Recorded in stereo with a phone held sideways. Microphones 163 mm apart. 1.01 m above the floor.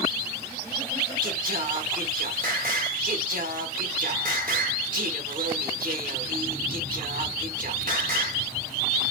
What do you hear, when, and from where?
1.2 s singing: 55° right (ahead or behind), 1.4 m